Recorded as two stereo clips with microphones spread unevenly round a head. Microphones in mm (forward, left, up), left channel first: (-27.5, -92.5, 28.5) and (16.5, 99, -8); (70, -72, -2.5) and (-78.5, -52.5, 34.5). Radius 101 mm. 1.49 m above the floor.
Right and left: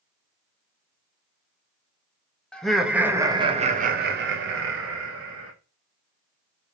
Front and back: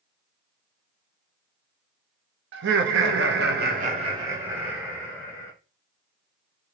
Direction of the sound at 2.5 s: 170° left.